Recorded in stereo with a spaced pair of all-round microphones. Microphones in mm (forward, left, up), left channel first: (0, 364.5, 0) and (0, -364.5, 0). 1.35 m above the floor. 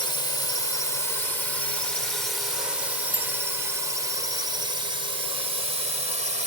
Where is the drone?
65° right (ahead or behind); by 6.5 s 75° right (ahead or behind).